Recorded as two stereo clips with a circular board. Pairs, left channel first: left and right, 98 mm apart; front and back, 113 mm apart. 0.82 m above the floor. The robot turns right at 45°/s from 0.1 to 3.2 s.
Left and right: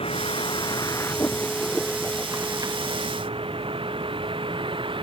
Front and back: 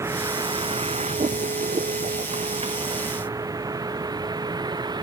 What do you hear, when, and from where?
0.0 s a vehicle: 115° left; by 5.0 s 125° right